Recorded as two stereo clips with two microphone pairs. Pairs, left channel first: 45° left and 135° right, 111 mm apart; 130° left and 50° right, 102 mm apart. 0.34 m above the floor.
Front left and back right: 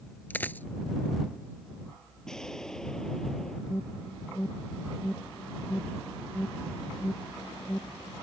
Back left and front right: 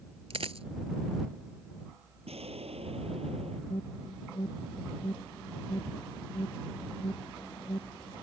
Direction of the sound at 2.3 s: 40° right.